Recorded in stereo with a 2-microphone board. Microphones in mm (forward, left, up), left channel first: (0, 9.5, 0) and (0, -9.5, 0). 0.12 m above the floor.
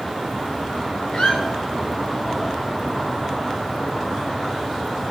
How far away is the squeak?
About 2 m.